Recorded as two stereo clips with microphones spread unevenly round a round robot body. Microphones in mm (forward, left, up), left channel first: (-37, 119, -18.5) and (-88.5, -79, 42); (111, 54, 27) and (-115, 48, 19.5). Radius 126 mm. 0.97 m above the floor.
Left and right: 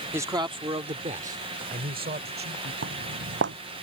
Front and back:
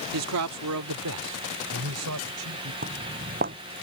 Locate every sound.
0.1 s a man speaking: 175° left; by 2.7 s 145° right
2.8 s footsteps: 120° right